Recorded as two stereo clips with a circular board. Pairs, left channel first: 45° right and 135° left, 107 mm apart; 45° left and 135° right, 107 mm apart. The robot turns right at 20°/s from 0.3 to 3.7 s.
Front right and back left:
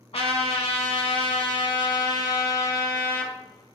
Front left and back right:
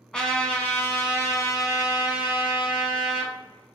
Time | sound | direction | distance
0.1 | a trumpet | 35° right | 0.6 m